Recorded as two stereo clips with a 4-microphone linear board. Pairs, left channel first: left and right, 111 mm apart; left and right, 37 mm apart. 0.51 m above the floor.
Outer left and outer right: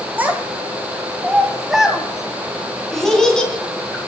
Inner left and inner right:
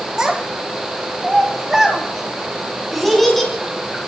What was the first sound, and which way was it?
A child speaking, 15° right (ahead or behind).